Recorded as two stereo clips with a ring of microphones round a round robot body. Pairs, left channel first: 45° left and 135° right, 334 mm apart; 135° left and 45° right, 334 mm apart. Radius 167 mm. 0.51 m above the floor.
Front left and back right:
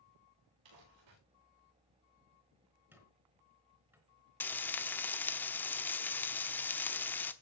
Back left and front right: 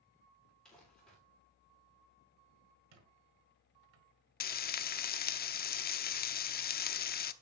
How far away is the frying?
About 0.8 m.